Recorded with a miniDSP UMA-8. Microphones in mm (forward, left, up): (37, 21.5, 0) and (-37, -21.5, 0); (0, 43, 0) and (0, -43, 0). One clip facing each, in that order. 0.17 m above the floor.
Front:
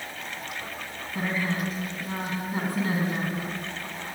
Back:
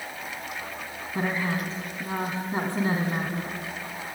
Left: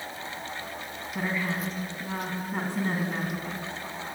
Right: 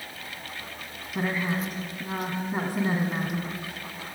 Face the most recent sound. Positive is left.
turn(degrees=-160)